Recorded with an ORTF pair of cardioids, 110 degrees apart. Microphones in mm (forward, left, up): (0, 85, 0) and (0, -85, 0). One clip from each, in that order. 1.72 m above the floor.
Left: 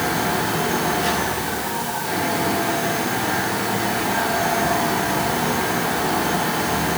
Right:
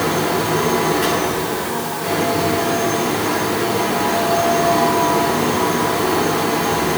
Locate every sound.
0.0 s a fan: 55° right, 7.5 m